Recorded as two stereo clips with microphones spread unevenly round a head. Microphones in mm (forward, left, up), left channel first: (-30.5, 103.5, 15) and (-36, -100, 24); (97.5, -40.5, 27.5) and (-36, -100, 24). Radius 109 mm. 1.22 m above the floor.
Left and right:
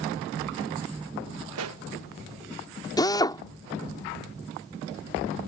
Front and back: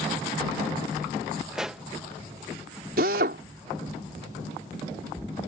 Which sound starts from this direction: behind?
A drill, at 3.0 s.